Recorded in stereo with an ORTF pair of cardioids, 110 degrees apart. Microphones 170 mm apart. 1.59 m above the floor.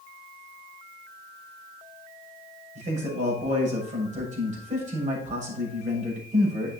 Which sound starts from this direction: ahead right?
A man speaking, at 2.8 s.